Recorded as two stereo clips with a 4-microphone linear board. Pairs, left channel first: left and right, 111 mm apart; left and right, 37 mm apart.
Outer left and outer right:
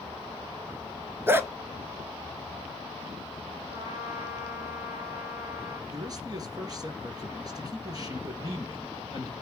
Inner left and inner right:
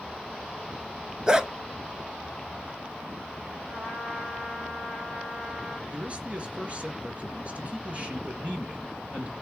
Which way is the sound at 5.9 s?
35° right (ahead or behind).